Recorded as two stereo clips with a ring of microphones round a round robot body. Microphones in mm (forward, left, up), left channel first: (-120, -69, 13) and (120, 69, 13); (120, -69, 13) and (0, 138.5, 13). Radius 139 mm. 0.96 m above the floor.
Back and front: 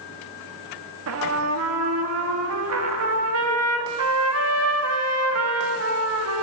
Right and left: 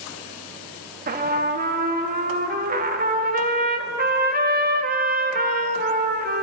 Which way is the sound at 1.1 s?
65° left.